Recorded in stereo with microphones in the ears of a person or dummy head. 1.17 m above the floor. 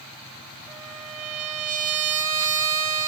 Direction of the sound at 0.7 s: 35° right (ahead or behind).